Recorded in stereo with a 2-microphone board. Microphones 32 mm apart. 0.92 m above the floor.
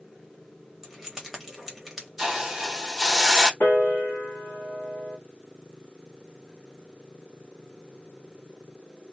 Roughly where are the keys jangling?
Centre.